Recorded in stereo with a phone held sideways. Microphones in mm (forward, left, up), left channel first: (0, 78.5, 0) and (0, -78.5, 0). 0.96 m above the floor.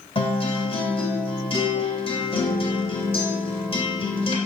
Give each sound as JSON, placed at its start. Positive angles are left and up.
{"t": 0.1, "sound": "a guitar", "side_deg": 40, "distance_m": 2.5}